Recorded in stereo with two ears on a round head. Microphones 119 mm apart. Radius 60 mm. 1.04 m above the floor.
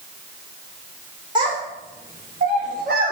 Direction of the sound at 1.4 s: 35° right (ahead or behind).